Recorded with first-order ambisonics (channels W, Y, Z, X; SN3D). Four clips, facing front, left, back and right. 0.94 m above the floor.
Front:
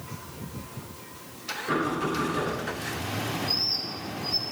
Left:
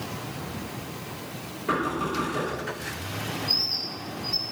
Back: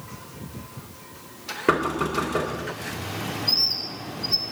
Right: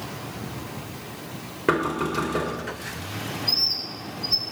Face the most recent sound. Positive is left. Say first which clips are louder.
# right 3 dB, back 7 dB
turn(degrees=-135)